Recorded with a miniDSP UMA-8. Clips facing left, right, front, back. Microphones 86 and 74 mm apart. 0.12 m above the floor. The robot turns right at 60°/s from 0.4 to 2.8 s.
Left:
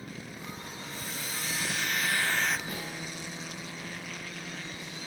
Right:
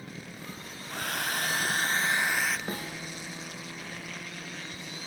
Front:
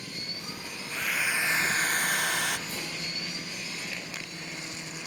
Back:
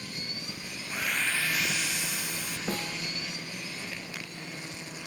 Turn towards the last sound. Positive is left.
turn(degrees=-140)